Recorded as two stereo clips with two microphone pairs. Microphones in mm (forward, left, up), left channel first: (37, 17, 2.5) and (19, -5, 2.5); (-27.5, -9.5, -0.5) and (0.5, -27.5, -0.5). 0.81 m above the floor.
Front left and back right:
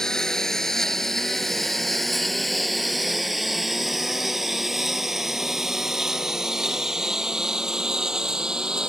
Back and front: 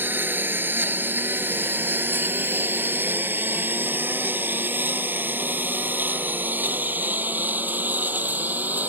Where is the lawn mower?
20° right; by 8.9 s 65° right.